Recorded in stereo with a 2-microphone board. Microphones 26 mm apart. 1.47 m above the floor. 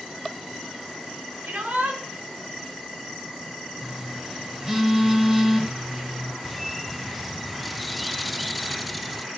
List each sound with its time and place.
1.4 s a shout: 80° right, 6.5 m
3.8 s a phone buzzing: 10° right (ahead or behind), 3.5 m
6.4 s a bird: centre (ahead or behind), 0.5 m